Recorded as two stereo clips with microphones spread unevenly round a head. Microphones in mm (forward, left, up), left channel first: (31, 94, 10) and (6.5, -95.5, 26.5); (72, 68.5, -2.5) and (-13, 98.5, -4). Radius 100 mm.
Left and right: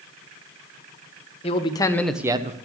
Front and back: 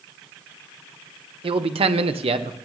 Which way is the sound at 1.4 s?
145° left.